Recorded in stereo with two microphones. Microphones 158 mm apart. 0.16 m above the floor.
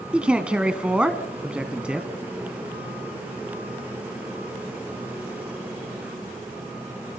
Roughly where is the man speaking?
Centre.